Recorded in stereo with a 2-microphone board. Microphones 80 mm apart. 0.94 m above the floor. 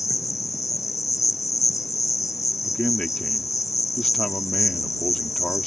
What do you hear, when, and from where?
0.0 s an insect: 45° left (ahead or behind)
2.6 s a man speaking: 10° left (ahead or behind)